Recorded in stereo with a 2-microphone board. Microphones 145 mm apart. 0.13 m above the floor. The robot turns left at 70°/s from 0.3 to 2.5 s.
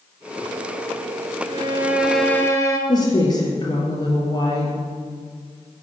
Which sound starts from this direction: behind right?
A violin, at 1.5 s.